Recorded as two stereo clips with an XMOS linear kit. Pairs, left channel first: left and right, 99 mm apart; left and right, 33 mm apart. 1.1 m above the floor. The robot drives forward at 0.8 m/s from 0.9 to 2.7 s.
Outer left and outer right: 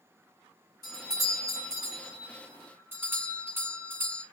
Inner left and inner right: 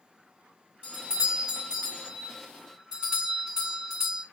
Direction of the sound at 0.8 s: 40° right (ahead or behind).